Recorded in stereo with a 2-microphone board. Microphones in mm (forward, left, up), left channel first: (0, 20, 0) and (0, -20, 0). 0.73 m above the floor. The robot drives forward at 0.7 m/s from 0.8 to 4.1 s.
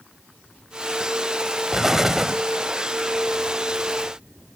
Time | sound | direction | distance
1.7 | an explosion | 10° right (ahead or behind) | 0.5 m